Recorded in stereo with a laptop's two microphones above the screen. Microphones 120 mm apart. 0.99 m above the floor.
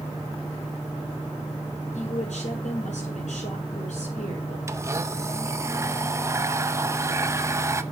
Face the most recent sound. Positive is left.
turn(degrees=-25)  # may be behind; listen again after turning